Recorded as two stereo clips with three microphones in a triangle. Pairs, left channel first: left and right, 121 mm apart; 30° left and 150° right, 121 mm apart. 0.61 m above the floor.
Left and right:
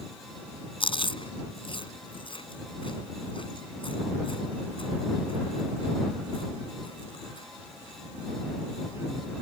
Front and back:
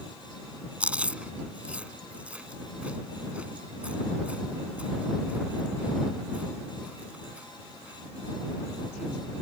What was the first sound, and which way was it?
Chewing, 130° left.